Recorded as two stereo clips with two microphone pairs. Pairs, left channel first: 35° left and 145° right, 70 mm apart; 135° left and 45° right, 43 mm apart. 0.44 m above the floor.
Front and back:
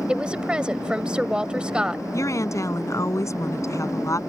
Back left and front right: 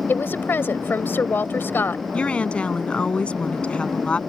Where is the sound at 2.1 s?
75° left.